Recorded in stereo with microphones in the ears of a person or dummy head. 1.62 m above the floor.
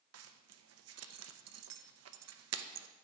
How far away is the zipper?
About 0.6 m.